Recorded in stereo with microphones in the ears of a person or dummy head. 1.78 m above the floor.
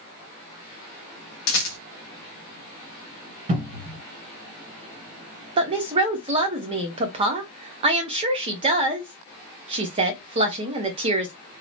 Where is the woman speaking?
30° right (ahead or behind), 0.8 m.